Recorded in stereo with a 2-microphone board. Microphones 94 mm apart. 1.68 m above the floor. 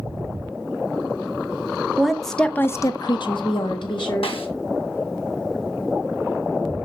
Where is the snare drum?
75° left (ahead or behind), 1.4 m.